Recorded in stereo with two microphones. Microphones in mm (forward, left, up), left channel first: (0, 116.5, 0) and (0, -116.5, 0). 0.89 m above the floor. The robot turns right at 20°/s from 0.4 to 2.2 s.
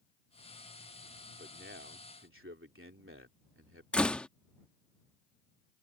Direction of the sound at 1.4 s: 45° right (ahead or behind).